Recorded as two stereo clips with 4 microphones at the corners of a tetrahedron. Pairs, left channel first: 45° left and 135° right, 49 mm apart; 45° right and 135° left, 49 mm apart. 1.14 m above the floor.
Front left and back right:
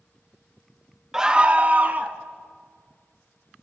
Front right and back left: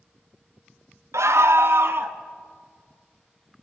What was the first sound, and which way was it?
A scream, 145° left.